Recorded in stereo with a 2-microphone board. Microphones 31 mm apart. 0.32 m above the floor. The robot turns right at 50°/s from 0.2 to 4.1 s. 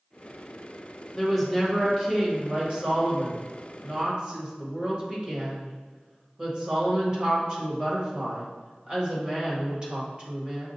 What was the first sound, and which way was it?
A woman speaking, 165° left.